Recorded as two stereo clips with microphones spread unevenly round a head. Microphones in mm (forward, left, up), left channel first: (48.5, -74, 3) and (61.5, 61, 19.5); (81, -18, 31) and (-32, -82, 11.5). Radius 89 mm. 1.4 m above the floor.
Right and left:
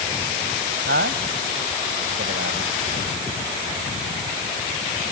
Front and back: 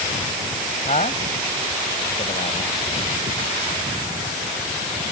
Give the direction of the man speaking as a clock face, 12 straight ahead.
9 o'clock.